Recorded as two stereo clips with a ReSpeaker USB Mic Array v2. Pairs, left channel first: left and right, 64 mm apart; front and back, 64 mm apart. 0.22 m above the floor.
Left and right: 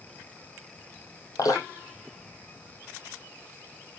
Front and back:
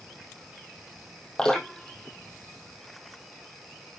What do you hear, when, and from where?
1.4 s dripping: 75° left, 3 m